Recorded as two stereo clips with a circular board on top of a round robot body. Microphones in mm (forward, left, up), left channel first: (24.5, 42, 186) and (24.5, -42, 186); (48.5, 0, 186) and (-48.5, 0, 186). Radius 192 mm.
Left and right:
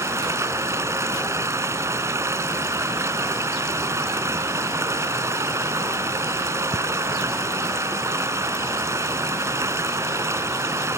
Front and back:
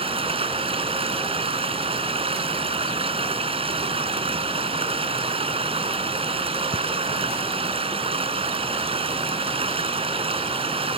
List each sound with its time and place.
0.0 s running water: 150° right